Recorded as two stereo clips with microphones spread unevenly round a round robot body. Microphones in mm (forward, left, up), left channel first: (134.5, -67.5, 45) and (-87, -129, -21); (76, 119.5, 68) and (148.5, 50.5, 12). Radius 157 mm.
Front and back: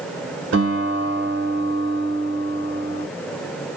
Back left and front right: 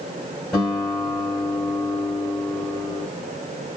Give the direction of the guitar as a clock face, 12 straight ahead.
4 o'clock.